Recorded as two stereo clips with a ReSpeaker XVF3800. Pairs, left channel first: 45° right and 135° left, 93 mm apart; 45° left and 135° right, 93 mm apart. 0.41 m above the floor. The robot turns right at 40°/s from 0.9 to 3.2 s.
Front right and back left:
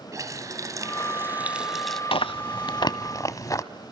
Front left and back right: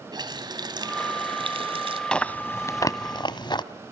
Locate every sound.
0.1 s a running tap: 175° right, 2 m; by 2.0 s 130° right, 2 m
2.1 s chewing: 35° right, 1.0 m; by 3.6 s 5° left, 1.0 m